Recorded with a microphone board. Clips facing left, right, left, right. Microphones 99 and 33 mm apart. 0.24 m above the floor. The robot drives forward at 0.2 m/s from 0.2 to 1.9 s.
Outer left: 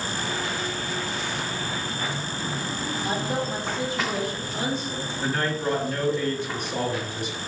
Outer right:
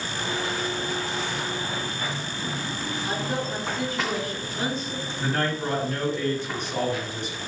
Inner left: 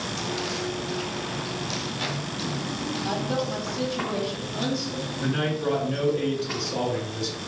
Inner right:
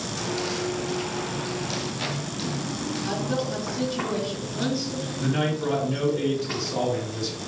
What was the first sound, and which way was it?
A woman speaking, 20° left (ahead or behind).